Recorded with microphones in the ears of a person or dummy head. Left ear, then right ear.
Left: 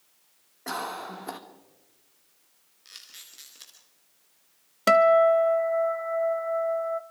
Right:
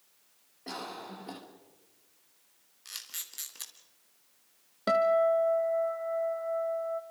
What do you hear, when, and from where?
0.7 s a cough: 50° left (ahead or behind), 2.5 m
2.9 s a camera shutter: 30° right (ahead or behind), 2.5 m
4.9 s a guitar: 55° left (ahead or behind), 0.9 m